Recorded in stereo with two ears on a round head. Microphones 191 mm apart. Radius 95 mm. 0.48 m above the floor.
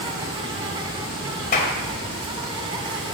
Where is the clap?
40° left (ahead or behind), 1.9 m.